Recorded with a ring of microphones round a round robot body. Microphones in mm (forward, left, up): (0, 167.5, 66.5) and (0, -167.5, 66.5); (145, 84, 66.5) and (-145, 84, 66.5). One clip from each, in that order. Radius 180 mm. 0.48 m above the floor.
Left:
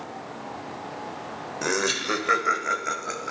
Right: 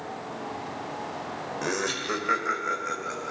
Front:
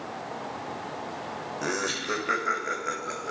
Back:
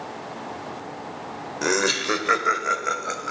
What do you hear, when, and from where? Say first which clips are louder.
1.6 s laughter: left 4 dB, back 8 dB; 155° left, 2 m; by 3.3 s 140° left, 3.5 m